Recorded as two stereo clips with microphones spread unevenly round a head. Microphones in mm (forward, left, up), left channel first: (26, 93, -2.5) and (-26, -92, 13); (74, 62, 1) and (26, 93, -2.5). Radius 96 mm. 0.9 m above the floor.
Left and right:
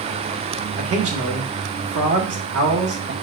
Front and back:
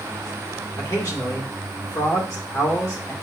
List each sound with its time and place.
0.8 s a man speaking: 90° right, 1.7 m